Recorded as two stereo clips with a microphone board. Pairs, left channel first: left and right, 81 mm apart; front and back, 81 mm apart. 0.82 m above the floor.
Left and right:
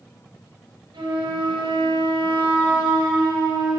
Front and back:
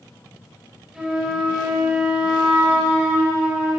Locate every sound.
0.9 s a flute: 95° right, 3.5 m